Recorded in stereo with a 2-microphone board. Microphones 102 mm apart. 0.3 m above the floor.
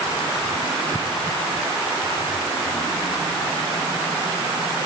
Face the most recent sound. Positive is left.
No sound to turn to.